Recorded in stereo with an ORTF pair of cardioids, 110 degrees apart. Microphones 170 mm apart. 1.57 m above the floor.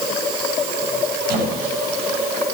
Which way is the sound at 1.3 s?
60° right.